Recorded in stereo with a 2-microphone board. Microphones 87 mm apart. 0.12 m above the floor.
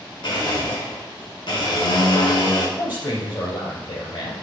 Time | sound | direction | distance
0.2 | a blender | 70° left (ahead or behind) | 4.5 m
2.8 | a man speaking | 65° left (ahead or behind) | 3 m